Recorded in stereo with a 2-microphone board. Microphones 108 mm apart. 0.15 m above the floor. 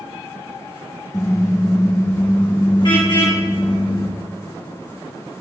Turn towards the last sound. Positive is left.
turn(degrees=50)  # may be behind; listen again after turning